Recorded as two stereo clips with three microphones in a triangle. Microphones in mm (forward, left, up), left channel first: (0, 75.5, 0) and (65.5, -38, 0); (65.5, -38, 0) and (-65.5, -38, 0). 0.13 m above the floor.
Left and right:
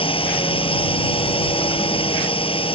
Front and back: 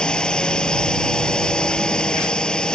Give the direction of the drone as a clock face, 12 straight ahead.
9 o'clock.